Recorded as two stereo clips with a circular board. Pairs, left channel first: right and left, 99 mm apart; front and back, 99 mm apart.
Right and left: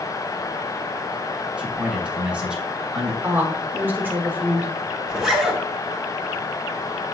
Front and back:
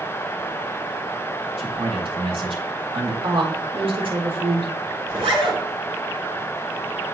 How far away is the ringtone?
No ringtone in this recording.